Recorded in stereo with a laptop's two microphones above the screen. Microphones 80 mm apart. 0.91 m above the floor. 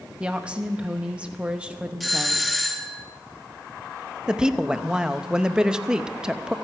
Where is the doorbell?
Centre (ahead or behind), 1.0 m.